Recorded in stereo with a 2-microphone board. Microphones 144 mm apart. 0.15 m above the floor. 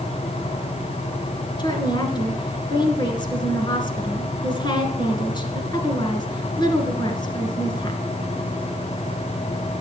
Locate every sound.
1.6 s a woman speaking: 30° left (ahead or behind), 2 m